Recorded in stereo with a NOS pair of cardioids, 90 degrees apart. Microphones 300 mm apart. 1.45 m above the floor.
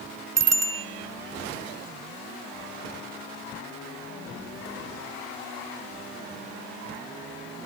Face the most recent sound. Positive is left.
turn(degrees=-60)